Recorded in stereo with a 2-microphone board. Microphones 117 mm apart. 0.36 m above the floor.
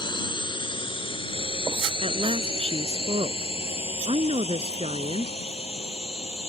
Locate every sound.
0.0 s a drone: 40° left (ahead or behind); by 6.5 s 60° left (ahead or behind)
2.0 s a woman speaking: 55° right (ahead or behind)